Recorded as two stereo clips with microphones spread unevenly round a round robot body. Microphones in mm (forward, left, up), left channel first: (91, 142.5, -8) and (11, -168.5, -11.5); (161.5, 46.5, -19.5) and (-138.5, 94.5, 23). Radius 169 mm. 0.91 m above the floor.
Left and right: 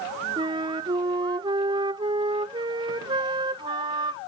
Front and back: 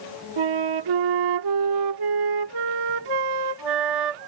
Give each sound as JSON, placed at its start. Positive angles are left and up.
{"t": 0.4, "sound": "a flute", "azimuth_deg": 180}